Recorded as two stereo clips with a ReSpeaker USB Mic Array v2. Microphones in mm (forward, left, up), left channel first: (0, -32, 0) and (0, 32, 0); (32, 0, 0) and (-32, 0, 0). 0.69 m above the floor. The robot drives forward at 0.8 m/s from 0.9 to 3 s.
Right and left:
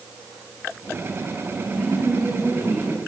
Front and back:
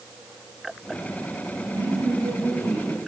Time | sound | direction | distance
1.7 | a woman speaking | 175° right | 3.5 m